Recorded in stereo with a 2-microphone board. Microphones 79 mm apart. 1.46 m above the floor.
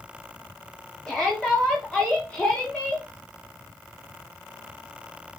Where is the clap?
I don't hear a clap.